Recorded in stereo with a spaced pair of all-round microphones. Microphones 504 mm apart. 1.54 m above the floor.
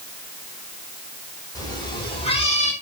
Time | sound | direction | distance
1.6 | a cat meowing | 5° left (ahead or behind) | 3.5 m